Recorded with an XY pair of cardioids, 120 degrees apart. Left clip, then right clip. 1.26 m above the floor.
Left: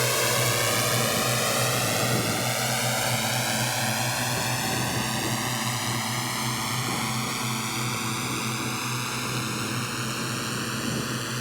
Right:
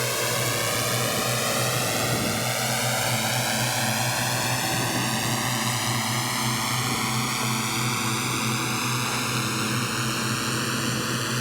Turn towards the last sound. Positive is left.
turn(degrees=-20)